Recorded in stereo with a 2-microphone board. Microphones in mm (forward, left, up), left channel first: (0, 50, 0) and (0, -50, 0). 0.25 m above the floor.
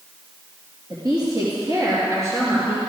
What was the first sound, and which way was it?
A woman speaking, 45° right (ahead or behind).